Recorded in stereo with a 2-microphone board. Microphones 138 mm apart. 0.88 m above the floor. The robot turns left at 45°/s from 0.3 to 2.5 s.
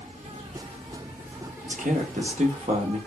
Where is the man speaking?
80° right, 0.8 m; by 3.0 s 115° right, 0.8 m.